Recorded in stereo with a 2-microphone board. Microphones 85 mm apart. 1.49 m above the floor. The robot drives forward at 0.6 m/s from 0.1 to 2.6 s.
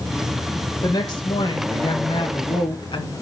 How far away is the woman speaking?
About 2.5 m.